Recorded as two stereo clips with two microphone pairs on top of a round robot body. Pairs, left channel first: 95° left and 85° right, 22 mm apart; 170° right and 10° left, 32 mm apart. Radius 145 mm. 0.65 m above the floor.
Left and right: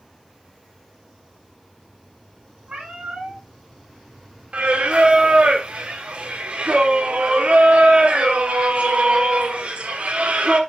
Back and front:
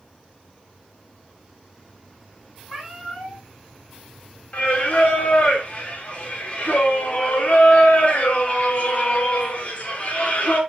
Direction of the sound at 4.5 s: 120° right.